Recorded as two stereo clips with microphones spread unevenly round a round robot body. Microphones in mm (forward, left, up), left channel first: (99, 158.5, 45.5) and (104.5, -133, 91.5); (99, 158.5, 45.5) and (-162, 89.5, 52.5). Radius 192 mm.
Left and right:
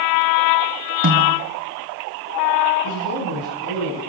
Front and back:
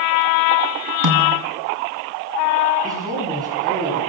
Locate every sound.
1.0 s a snare drum: 145° right, 1.8 m
2.8 s a man speaking: 120° left, 8.5 m